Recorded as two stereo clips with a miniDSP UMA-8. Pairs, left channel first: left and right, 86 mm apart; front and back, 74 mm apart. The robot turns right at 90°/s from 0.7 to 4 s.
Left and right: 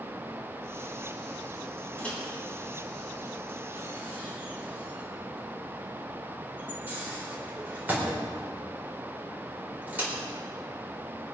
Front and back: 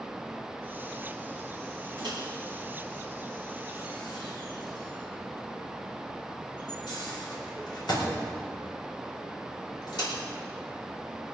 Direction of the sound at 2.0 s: 160° left.